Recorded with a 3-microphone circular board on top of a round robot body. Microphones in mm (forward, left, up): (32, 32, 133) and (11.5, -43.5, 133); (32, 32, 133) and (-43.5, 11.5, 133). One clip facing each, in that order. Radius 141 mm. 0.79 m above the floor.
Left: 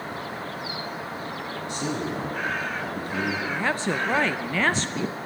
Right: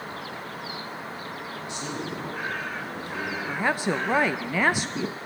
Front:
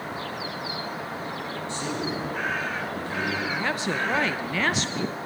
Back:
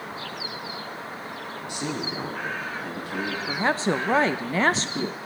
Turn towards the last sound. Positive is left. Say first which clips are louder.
# even, back 3 dB
turn(degrees=-175)